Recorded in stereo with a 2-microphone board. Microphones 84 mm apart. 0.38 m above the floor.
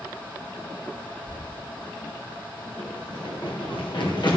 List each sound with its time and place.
1.3 s keys jangling: 75° left (ahead or behind), 3 m
2.8 s running footsteps: 80° left, 4 m; by 4.4 s 60° left (ahead or behind), 3.5 m